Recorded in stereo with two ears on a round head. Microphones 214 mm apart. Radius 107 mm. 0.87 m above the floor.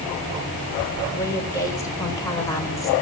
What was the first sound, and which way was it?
A woman speaking, 15° left (ahead or behind).